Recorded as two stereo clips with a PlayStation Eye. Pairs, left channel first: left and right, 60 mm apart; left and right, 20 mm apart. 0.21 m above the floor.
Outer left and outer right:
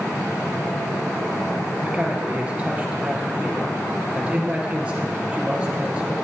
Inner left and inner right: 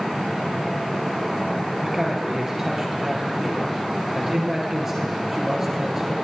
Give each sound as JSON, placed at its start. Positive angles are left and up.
{"t": 1.8, "sound": "a man speaking", "side_deg": -15, "distance_m": 4.0}